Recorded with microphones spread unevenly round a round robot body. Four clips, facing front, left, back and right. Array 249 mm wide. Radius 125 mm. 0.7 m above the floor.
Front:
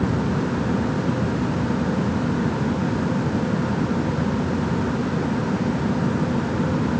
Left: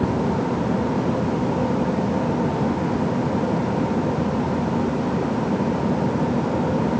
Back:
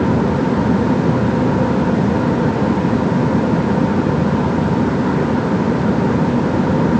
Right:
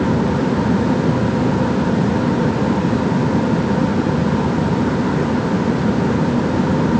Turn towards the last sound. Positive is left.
No sound to turn to.